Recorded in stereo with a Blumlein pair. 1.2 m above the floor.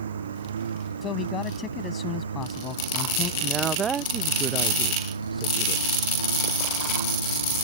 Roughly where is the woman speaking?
Ahead.